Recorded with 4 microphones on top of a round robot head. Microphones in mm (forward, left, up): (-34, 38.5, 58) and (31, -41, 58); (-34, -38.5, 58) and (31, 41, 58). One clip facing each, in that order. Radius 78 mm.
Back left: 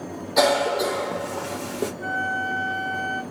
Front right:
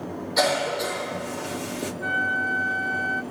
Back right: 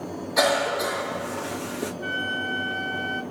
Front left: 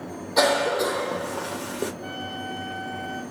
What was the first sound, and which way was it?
A cough, 115° left.